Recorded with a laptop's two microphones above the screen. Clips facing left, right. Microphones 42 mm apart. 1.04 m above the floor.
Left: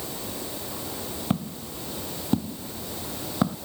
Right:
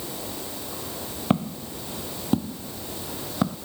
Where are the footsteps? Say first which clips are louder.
Right 6 dB; 25° right (ahead or behind); by 3.6 s 5° left (ahead or behind).